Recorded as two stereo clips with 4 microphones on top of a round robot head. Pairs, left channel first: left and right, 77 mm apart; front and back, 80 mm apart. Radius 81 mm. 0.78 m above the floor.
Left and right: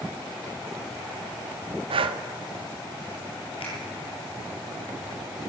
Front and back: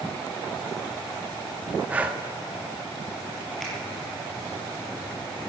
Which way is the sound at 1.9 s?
100° right.